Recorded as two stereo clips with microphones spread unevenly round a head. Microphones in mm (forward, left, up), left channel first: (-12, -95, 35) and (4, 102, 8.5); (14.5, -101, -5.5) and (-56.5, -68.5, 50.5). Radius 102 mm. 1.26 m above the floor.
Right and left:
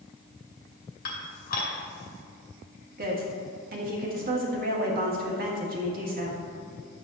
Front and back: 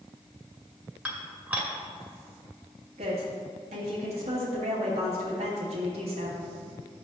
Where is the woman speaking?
130° left, 2 m.